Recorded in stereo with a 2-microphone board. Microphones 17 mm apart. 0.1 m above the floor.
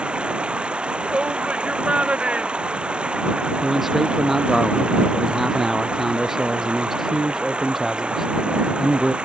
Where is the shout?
85° right.